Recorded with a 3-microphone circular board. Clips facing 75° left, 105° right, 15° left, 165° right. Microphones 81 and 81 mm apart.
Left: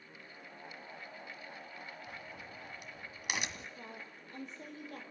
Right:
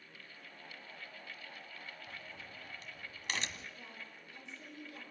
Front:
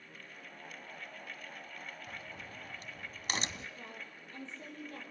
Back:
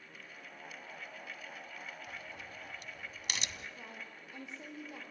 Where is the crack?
5° left, 1.5 m.